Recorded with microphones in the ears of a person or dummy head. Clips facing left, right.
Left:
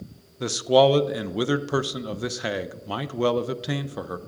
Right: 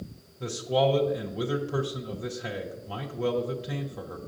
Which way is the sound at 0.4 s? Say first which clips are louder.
Left 7 dB; 70° left (ahead or behind).